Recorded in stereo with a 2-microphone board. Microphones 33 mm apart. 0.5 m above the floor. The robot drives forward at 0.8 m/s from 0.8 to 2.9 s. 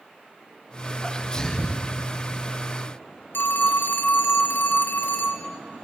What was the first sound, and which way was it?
A sneeze, 25° left (ahead or behind).